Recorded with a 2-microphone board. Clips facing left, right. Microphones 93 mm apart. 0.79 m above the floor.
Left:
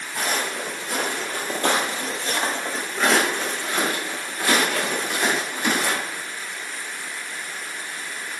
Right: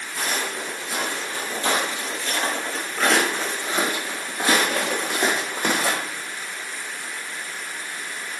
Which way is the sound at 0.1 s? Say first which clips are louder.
Left 2 dB; 60° left (ahead or behind).